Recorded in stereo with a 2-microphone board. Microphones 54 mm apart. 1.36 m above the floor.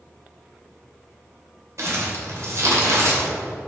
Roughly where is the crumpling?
Right.